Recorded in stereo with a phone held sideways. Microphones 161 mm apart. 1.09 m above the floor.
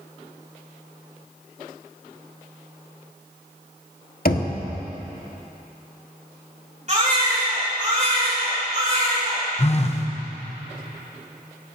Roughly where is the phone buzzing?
Left.